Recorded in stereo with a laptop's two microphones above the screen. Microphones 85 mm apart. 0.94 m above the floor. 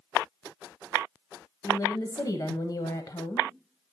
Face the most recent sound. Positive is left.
turn(degrees=40)  # may be behind; listen again after turning